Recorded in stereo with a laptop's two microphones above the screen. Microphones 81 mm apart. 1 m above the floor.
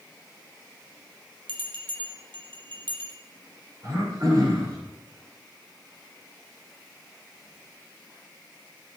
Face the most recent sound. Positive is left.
turn(degrees=-50)  # may be behind; listen again after turning